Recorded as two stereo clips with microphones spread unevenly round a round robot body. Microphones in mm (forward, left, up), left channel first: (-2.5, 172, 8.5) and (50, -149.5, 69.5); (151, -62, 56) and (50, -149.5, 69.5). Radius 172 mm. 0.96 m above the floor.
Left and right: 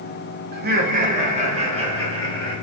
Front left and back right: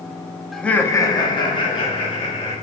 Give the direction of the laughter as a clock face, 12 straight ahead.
1 o'clock.